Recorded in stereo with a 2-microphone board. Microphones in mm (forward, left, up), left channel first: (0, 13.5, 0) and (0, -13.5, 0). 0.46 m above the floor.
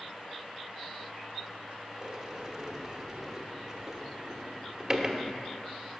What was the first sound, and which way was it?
A sliding door, 15° right (ahead or behind).